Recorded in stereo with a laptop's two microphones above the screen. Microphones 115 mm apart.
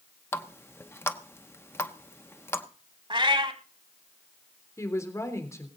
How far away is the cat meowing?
About 1.4 m.